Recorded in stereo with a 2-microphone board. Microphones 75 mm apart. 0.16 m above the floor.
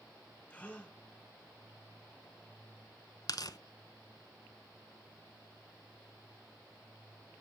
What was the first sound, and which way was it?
A gasp, 15° left (ahead or behind).